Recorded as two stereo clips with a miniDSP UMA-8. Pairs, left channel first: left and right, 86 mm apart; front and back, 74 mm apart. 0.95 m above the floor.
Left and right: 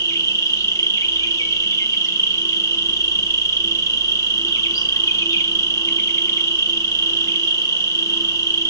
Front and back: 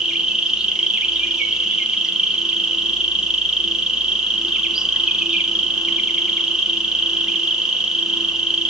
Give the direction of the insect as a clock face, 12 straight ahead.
8 o'clock.